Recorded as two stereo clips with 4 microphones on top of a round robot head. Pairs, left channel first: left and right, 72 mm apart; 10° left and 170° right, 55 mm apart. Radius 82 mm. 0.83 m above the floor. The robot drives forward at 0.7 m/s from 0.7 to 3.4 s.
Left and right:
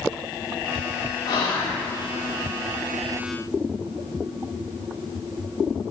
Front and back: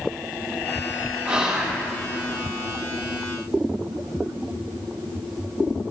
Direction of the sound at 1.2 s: 120° left.